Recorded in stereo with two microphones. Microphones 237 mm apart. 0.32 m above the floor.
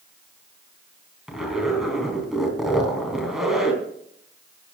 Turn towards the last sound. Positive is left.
turn(degrees=0)  # may be behind; listen again after turning